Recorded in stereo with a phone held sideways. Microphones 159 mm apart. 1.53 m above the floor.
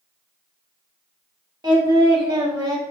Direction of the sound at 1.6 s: 30° right (ahead or behind).